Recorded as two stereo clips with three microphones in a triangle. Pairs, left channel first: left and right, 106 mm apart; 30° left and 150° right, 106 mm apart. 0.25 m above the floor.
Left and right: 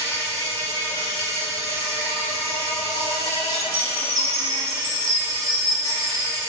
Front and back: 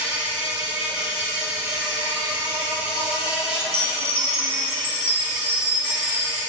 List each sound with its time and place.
0.0 s an insect: 130° left, 0.9 m
3.6 s a chime: 40° right, 1.0 m